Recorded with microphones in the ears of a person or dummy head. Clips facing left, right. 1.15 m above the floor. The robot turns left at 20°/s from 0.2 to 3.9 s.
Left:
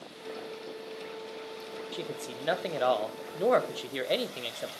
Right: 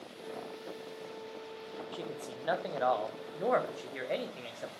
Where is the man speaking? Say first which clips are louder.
Left 4 dB; 150° left, 0.6 m; by 4.7 s 110° left, 0.6 m.